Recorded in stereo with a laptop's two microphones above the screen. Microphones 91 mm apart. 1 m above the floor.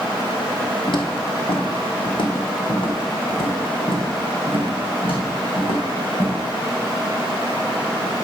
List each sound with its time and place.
0.9 s footsteps: 60° left (ahead or behind), 1.8 m; by 6.4 s 80° left, 4.5 m